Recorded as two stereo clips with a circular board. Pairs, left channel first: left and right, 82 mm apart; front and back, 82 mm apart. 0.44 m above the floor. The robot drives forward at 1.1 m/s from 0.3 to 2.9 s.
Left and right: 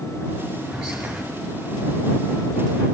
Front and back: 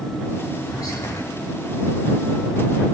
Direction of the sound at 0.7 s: 5° right.